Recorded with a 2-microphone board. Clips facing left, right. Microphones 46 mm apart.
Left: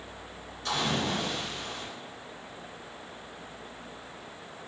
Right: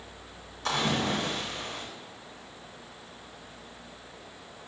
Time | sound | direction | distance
0.7 | a splash | 65° right (ahead or behind) | 2.5 m